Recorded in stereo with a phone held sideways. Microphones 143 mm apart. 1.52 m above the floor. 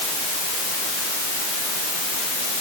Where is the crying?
I don't hear crying.